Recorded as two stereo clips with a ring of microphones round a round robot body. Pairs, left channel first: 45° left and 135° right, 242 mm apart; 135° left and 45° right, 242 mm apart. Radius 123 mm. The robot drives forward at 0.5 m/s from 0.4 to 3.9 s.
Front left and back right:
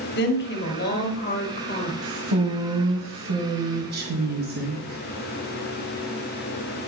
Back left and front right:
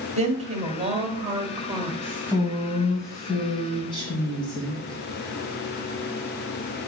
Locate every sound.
0.1 s a woman speaking: 10° left, 2 m; by 1.9 s 20° left, 1.5 m
2.0 s a woman speaking: 140° right, 1.9 m; by 5.0 s 155° right, 2.5 m